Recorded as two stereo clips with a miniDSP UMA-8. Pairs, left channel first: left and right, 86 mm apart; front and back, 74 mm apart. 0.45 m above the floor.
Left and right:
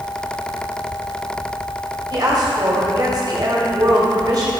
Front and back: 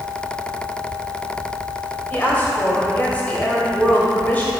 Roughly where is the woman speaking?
Ahead right.